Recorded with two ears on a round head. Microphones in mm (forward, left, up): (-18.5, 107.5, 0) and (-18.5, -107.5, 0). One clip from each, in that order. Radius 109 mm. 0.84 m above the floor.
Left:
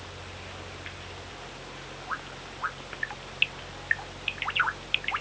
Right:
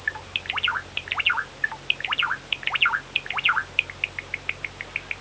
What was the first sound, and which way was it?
Only background noise.